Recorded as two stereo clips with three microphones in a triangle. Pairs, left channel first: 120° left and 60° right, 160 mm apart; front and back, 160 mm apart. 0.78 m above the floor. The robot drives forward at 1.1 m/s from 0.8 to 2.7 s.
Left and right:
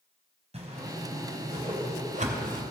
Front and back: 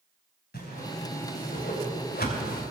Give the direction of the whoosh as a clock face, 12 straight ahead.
12 o'clock.